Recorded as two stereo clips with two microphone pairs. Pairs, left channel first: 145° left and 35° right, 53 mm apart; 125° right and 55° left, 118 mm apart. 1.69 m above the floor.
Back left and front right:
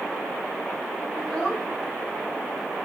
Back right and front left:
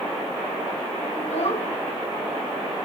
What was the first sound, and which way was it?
A child speaking, 140° right.